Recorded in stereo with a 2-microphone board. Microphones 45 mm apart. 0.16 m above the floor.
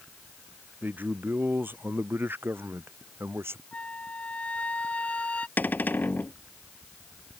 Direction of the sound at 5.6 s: 45° left (ahead or behind).